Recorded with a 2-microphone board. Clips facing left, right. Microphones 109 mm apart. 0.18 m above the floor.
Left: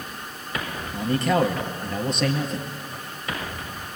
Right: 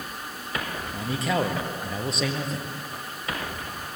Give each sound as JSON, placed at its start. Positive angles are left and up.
{"t": 0.9, "sound": "a man speaking", "side_deg": 0, "distance_m": 4.0}